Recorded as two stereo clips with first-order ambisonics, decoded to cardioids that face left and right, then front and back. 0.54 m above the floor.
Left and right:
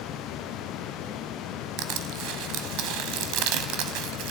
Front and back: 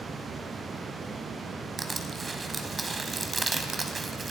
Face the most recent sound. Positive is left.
turn(degrees=-105)